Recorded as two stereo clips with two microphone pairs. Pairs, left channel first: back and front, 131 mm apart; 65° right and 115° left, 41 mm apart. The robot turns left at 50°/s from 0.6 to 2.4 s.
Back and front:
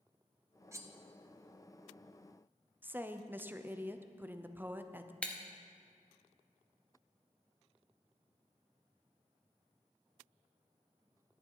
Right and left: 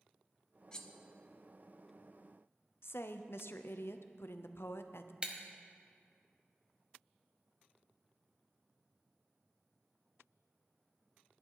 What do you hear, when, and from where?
0.7 s cutlery clinking: 25° right, 0.8 m; by 0.9 s 35° right, 0.8 m
2.8 s a woman speaking: 80° right, 0.6 m
5.2 s breaking glass: 115° left, 1.1 m